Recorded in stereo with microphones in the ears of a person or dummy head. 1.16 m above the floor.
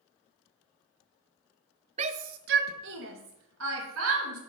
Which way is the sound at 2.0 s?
30° right (ahead or behind).